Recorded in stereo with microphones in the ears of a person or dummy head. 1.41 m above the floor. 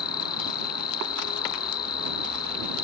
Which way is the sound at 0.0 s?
30° left (ahead or behind).